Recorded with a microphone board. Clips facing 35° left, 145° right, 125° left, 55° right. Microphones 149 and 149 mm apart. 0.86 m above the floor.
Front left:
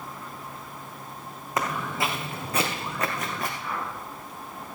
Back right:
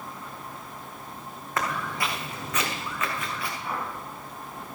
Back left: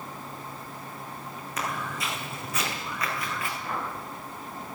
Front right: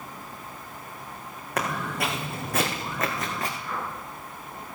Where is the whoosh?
140° left, 5.5 m.